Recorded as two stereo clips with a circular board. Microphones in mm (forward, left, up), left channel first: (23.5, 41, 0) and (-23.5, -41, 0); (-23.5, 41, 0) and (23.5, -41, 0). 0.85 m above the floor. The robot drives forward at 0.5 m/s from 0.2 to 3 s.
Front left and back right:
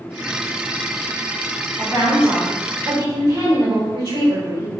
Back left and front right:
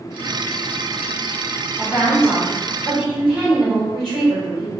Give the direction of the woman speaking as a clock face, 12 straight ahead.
5 o'clock.